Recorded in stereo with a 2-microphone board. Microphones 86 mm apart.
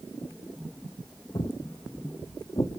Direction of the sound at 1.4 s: 75° left (ahead or behind).